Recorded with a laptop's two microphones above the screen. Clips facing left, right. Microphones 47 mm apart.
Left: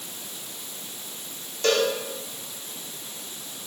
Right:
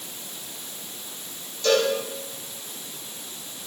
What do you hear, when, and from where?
1.6 s a cowbell: 50° left (ahead or behind), 2 m